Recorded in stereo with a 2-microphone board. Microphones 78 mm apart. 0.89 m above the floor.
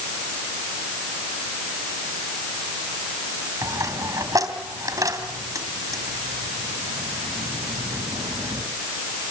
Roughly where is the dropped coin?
Right.